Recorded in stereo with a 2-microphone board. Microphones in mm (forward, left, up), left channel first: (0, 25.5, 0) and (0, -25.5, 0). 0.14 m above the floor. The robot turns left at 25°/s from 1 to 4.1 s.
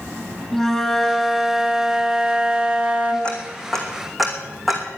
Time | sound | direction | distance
0.5 | a flute | 15° left | 2 m
3.2 | ticking | 20° left (ahead or behind) | 2.5 m